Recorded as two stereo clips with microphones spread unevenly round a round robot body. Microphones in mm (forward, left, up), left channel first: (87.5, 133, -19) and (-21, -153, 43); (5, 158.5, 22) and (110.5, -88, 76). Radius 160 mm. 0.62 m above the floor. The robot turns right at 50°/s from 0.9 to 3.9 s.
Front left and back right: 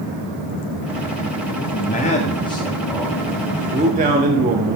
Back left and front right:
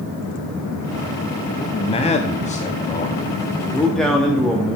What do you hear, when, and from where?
1.6 s a man speaking: 65° left, 0.7 m; by 4.8 s straight behind, 0.7 m